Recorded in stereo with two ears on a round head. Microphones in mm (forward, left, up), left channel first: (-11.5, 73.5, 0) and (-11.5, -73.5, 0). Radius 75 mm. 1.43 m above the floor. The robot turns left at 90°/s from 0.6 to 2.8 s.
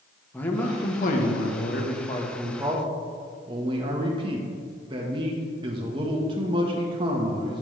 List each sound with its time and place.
0.3 s a man speaking: 170° left, 1.4 m; by 7.6 s 30° right, 1.4 m